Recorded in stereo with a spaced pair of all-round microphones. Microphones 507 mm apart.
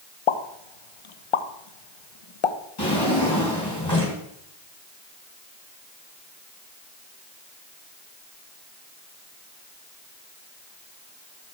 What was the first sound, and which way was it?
A pop, 65° left (ahead or behind).